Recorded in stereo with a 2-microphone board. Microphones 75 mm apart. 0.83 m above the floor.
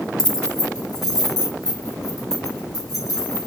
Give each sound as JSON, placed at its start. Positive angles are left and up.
{"t": 0.2, "sound": "keys jangling", "side_deg": 65, "distance_m": 0.8}